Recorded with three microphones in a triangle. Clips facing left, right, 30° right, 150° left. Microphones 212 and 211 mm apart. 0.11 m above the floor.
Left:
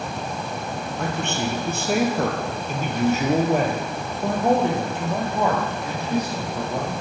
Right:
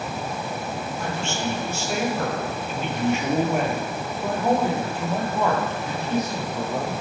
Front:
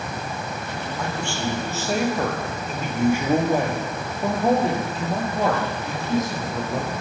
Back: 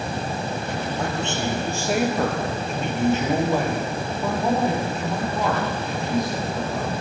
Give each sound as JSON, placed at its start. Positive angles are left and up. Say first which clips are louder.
{"t": 1.0, "sound": "a man speaking", "louder": "left 4 dB, even", "azimuth_deg": 90, "distance_m": 2.5}